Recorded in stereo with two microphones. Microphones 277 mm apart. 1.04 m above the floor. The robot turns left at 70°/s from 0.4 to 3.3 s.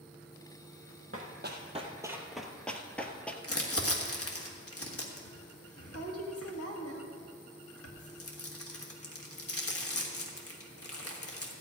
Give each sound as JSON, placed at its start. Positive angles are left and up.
{"t": 1.1, "sound": "running footsteps", "side_deg": -50, "distance_m": 1.9}
{"t": 3.4, "sound": "crumpling", "side_deg": 55, "distance_m": 1.6}